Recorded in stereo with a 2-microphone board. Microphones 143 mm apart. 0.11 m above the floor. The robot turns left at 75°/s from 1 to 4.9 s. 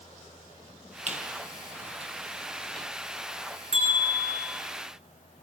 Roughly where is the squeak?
Right.